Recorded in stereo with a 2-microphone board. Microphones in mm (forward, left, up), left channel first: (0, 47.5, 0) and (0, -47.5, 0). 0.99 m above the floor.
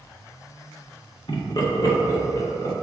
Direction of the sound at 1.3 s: 60° left (ahead or behind).